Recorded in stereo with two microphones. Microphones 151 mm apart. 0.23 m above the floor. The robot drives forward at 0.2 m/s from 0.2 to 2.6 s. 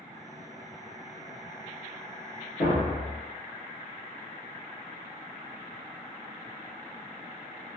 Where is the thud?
70° left (ahead or behind), 1.3 m.